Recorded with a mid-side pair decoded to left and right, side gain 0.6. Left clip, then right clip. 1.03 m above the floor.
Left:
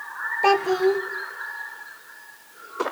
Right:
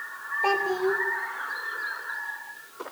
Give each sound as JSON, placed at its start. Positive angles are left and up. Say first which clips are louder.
{"t": 0.4, "sound": "a child speaking", "louder": "left 5 dB", "azimuth_deg": 35, "distance_m": 2.0}